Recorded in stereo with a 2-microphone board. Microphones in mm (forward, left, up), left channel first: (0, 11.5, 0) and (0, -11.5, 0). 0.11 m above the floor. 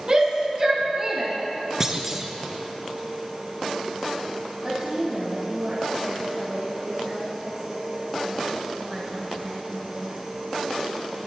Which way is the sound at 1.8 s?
20° right (ahead or behind).